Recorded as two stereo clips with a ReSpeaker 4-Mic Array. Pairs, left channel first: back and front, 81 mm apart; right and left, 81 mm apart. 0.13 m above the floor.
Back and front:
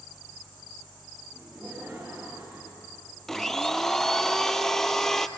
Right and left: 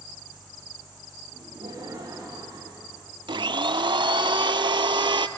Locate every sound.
1.3 s laughter: 80° left, 7.5 m; by 3.0 s 65° left, 7 m
3.3 s a blender: 95° left, 0.7 m